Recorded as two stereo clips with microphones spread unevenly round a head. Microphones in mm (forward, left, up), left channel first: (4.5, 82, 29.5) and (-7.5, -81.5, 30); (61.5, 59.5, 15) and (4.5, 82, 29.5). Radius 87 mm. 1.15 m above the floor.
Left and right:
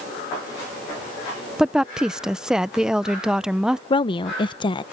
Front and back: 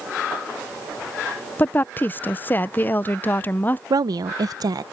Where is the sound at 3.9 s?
145° left.